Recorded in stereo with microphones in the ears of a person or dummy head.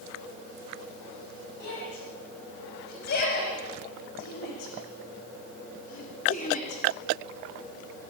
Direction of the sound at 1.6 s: 60° left (ahead or behind).